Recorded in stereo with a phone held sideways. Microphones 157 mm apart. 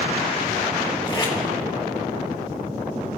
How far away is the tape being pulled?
About 1.5 m.